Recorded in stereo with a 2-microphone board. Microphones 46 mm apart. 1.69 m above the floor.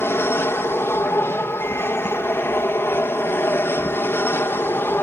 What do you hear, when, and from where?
0.0 s an aircraft: 60° left (ahead or behind); by 5.0 s 55° left (ahead or behind)